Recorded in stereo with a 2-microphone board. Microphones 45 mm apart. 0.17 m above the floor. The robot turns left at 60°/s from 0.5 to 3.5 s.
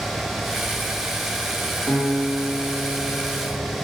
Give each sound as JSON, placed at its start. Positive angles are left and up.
{"t": 1.9, "sound": "a guitar", "azimuth_deg": 95, "distance_m": 1.0}